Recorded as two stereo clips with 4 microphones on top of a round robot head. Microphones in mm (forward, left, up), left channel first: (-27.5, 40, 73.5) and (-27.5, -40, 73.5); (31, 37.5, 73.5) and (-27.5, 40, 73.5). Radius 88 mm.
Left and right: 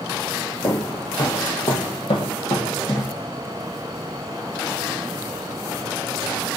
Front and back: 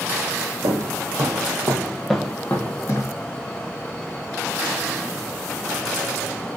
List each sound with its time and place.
0.6 s footsteps: 155° left, 1.1 m; by 3.1 s 30° left, 0.8 m